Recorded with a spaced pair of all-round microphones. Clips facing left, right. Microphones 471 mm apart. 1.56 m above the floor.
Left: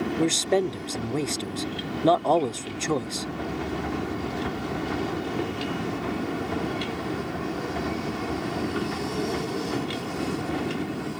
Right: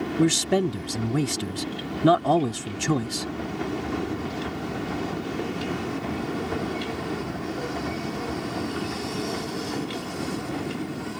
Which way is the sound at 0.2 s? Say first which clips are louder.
Right 3 dB; 30° right (ahead or behind).